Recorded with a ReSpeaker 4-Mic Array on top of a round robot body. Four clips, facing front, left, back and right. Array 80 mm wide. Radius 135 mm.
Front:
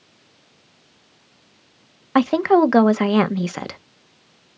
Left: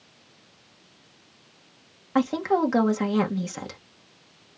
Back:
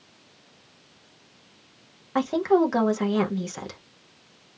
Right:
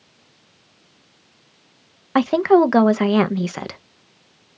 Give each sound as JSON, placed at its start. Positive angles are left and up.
{"t": 2.1, "sound": "a woman speaking", "azimuth_deg": -40, "distance_m": 0.7}